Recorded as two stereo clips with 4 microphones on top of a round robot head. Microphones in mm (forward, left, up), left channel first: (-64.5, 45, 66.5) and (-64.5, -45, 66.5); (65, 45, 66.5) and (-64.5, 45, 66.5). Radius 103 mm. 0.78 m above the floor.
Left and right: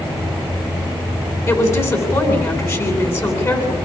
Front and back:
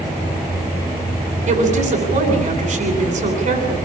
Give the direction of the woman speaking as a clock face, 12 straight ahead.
7 o'clock.